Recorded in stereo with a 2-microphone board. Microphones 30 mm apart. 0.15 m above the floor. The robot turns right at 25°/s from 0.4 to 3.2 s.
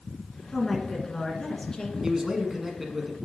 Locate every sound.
0.5 s a woman speaking: 15° left, 1.5 m; by 1.9 s 50° left, 1.5 m
2.0 s a man speaking: 15° right (ahead or behind), 1.2 m; by 3.2 s 5° right (ahead or behind), 1.2 m